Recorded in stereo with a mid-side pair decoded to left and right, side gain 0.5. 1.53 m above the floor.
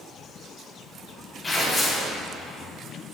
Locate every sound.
1.4 s tearing paper: 25° left, 3 m